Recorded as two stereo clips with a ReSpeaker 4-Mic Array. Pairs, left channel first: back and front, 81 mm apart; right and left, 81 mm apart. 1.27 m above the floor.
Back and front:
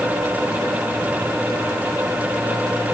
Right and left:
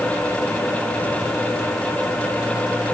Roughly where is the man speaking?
No man speaking in this recording.